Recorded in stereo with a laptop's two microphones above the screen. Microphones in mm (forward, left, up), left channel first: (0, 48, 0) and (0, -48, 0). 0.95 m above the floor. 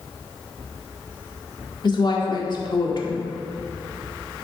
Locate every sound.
1.8 s a woman speaking: 50° left (ahead or behind), 1.8 m